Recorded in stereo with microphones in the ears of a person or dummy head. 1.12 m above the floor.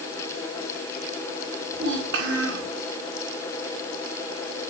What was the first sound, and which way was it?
A child speaking, 55° right (ahead or behind).